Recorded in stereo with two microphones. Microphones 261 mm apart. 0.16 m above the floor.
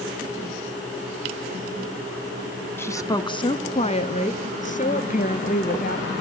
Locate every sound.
2.8 s a woman speaking: 10° left (ahead or behind), 1.1 m; by 6.2 s 35° left (ahead or behind), 3 m